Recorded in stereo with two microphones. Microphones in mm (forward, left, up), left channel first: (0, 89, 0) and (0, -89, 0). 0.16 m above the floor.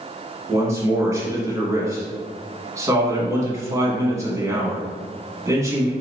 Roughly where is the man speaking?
Centre.